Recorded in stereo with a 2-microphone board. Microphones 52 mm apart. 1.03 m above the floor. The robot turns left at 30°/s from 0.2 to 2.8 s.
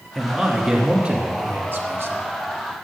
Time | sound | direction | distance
0.1 | a man speaking | straight ahead | 1.4 m